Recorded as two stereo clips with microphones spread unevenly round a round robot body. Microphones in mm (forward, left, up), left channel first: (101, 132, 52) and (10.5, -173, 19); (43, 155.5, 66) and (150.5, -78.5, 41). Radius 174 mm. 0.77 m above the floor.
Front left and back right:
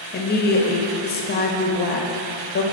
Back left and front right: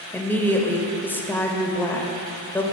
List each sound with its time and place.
0.1 s a woman speaking: 30° left, 0.9 m